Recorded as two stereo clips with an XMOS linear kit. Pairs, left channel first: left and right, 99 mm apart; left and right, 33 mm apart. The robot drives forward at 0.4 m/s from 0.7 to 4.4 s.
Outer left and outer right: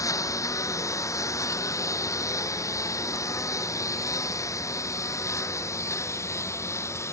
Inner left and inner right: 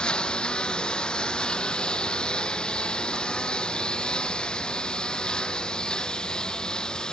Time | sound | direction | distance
0.0 | a lawn mower | 35° left (ahead or behind) | ?